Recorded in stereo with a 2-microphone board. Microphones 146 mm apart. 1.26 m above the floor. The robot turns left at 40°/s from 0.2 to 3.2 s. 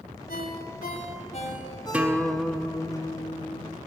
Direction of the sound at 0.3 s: 85° left.